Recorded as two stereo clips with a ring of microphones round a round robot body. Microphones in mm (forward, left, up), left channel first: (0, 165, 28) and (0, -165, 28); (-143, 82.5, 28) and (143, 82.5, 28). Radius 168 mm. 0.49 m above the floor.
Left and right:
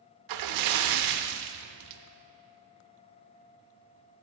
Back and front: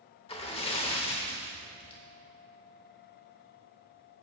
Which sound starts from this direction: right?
A splash, at 0.3 s.